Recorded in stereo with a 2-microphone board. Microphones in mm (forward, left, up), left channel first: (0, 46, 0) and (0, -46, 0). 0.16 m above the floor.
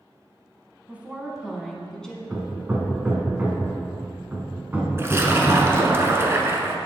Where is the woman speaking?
20° right (ahead or behind), 1.0 m; by 2.2 s 10° left (ahead or behind), 1.2 m.